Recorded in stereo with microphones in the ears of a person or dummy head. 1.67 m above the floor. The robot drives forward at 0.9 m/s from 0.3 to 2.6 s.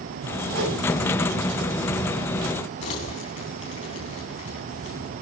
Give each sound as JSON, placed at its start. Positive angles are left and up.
{"t": 0.5, "sound": "a whoosh", "side_deg": -85, "distance_m": 8.0}
{"t": 2.8, "sound": "crumpling", "side_deg": 35, "distance_m": 3.0}